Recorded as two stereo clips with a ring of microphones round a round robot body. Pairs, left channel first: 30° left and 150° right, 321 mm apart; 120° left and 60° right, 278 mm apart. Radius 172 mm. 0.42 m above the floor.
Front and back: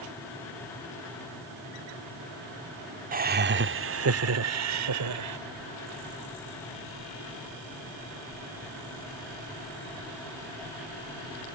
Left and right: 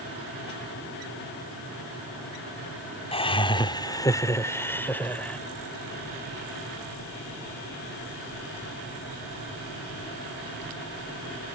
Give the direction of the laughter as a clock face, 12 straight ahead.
6 o'clock.